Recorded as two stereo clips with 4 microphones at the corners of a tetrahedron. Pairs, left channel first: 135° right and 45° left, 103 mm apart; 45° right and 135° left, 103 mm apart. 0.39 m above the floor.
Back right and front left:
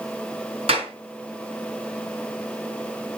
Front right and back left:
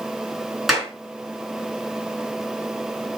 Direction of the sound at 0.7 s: 45° left.